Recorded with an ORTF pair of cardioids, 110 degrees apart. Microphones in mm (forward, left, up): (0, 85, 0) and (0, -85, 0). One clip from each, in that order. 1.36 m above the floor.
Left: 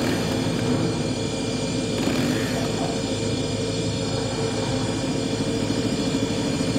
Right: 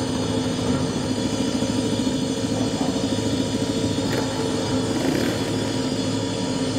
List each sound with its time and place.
0.0 s a machine running: 5° right, 2 m